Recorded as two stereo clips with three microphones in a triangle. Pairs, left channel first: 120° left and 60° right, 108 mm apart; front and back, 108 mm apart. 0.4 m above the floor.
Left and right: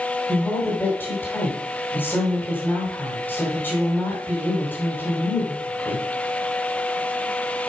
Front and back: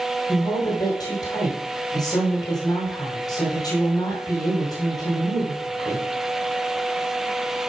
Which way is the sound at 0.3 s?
50° left.